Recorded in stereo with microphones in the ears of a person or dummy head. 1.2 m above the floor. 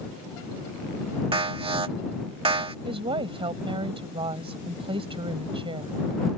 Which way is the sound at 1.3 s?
20° right (ahead or behind).